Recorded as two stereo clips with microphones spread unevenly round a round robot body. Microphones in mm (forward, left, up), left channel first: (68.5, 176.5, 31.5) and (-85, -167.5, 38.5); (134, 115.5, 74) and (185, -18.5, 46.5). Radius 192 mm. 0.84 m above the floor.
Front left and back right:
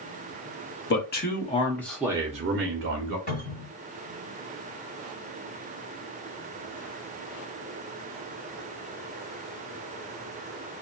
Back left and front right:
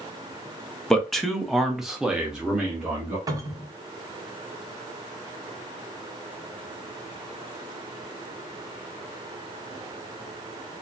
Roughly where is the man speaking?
Ahead.